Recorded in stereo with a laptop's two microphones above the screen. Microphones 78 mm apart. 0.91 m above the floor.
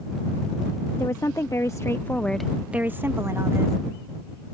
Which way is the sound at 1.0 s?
45° left (ahead or behind).